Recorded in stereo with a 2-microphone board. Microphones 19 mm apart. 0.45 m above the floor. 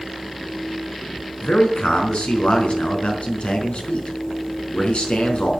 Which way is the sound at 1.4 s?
75° left (ahead or behind).